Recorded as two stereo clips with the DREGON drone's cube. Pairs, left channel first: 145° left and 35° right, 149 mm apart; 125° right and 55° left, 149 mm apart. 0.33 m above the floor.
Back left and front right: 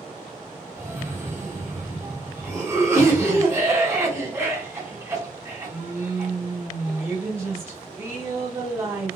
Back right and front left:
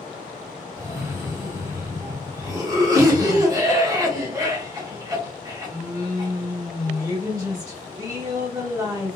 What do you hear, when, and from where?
0.8 s a cough: 20° left, 1.2 m